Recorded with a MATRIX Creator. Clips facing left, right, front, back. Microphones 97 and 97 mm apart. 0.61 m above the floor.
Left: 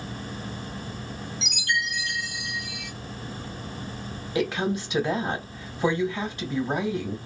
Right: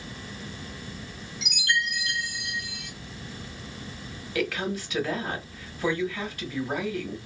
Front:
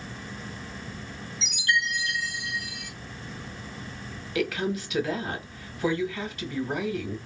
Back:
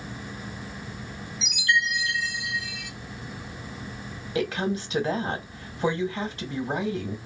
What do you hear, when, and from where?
1.4 s a chime: 60° right, 1.7 m
4.3 s a woman speaking: 140° left, 1.1 m